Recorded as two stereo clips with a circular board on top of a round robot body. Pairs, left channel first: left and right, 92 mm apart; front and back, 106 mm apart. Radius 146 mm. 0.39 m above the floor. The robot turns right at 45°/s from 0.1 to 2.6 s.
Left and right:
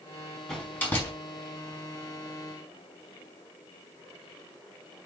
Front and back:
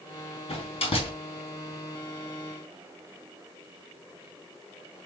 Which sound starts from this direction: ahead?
A door slam, at 0.5 s.